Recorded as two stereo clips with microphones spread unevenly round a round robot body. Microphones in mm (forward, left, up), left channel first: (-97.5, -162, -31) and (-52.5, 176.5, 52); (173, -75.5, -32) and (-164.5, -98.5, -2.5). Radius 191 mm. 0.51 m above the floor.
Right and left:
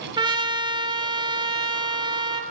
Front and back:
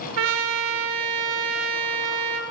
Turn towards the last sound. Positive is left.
turn(degrees=160)